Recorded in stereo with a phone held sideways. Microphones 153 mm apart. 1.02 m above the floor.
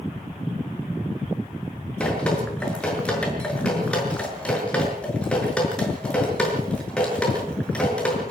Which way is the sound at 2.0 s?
5° left (ahead or behind).